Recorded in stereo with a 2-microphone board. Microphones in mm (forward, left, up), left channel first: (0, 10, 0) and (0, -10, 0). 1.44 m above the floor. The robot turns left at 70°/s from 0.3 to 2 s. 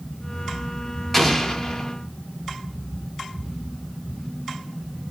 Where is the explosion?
5° left (ahead or behind), 0.5 m; by 1.9 s 25° left (ahead or behind), 0.5 m.